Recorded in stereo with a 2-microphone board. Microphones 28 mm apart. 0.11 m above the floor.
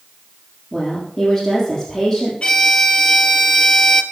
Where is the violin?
35° left (ahead or behind), 1.3 m.